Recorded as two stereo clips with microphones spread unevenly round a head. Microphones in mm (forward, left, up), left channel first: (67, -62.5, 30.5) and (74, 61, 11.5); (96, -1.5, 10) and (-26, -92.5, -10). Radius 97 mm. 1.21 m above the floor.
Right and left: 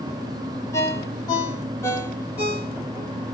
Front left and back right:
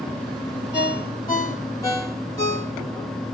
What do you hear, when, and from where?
0.7 s a ringtone: 30° right, 3 m